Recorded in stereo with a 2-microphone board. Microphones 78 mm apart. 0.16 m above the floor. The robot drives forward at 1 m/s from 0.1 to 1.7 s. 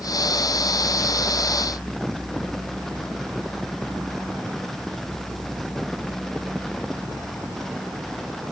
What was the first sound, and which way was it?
Only background noise.